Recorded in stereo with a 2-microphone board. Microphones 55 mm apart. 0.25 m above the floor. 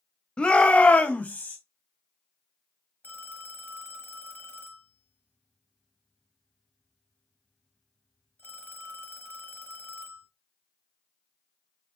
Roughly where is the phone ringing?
Left.